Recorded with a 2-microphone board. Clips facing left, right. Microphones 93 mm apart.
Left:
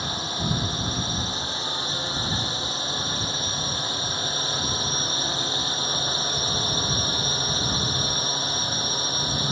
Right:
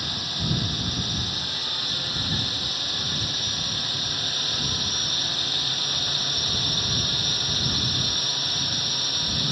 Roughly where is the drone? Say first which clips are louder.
Left 3 dB; left.